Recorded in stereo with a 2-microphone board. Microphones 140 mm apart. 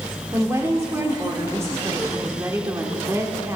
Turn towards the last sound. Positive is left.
turn(degrees=-20)  # may be behind; listen again after turning